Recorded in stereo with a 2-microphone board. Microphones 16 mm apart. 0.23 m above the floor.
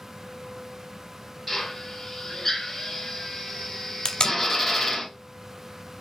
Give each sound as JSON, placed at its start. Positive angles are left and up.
{"t": 1.5, "sound": "a drill", "side_deg": 20, "distance_m": 2.0}
{"t": 4.0, "sound": "tape being pulled", "side_deg": 55, "distance_m": 0.6}